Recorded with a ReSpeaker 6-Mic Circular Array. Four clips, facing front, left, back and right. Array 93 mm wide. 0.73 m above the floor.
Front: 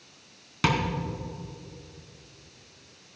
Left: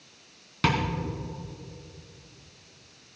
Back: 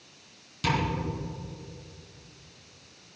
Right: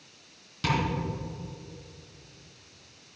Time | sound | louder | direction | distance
0.6 | tapping | left 2 dB, front 2 dB | 45° left | 2.5 m